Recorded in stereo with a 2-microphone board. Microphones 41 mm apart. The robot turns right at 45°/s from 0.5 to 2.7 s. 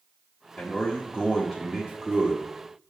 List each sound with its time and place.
0.6 s a man speaking: 125° left, 1.2 m; by 2.5 s 150° right, 1.2 m